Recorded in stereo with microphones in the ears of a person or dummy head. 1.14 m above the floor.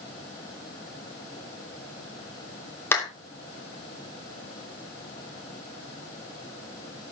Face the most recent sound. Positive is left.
turn(degrees=10)  # may be behind; listen again after turning